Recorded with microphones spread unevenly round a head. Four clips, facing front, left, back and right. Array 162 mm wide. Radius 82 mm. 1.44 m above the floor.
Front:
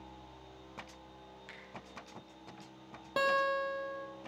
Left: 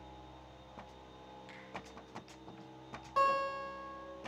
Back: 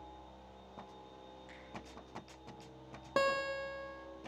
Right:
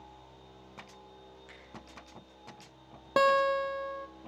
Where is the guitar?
100° right, 1.0 m.